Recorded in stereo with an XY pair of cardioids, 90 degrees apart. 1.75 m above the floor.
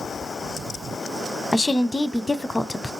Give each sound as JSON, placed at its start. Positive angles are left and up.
{"t": 1.5, "sound": "a woman speaking", "azimuth_deg": 30, "distance_m": 0.6}